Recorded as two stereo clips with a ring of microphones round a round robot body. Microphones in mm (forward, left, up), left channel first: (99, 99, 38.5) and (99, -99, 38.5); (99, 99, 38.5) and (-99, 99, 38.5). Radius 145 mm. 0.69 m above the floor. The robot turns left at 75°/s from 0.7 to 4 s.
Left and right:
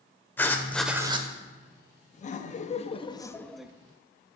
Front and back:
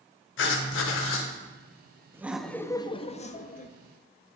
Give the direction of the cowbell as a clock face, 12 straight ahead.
No cowbell in this recording.